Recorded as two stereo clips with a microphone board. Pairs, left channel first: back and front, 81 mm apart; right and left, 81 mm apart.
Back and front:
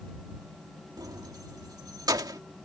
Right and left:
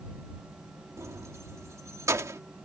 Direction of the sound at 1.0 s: 40° left.